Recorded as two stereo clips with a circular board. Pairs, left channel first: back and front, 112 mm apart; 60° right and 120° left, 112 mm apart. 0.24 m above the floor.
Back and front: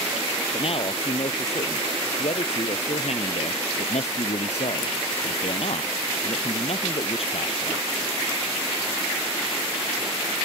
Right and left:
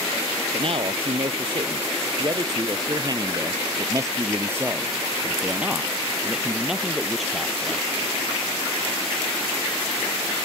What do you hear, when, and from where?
0.5 s a man speaking: 150° left; by 7.9 s 145° right